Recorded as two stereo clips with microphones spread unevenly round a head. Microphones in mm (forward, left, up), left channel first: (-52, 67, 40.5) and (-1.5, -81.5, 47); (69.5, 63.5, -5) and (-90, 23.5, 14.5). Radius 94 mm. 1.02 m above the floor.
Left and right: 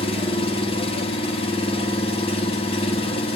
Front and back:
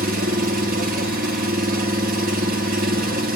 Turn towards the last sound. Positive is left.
turn(degrees=165)